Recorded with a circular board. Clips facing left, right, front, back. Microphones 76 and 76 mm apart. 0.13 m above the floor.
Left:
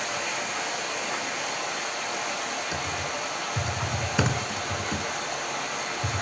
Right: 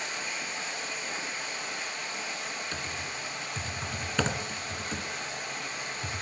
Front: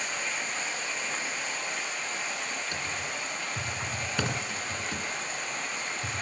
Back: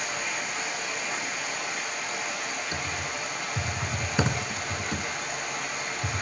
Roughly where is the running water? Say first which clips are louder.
Left 6 dB, back 2 dB; left.